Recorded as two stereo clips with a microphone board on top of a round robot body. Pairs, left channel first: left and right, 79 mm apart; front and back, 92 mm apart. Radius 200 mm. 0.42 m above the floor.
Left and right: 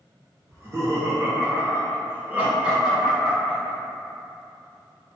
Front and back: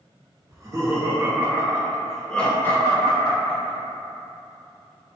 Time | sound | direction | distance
0.5 | laughter | 135° right | 1.3 m